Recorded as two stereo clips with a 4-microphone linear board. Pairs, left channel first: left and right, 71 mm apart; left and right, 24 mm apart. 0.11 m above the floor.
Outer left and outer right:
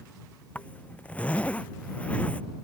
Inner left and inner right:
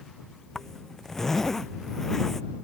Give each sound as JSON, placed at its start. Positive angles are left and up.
{"t": 0.6, "sound": "a zipper", "side_deg": 20}